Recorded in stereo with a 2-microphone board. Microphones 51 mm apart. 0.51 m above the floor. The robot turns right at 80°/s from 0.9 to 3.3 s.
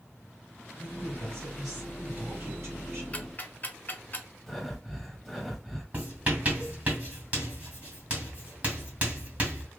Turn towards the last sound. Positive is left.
turn(degrees=-30)  # may be behind; listen again after turning